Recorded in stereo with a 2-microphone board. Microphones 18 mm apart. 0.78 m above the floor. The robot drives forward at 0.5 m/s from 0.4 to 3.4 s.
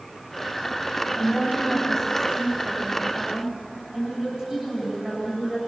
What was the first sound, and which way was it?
A woman speaking, 40° right (ahead or behind).